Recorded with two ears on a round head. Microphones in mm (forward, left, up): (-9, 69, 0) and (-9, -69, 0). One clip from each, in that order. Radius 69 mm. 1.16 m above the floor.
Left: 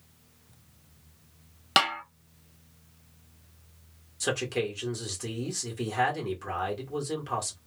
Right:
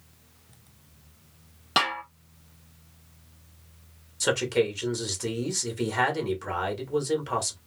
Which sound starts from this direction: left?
A snare drum, at 1.8 s.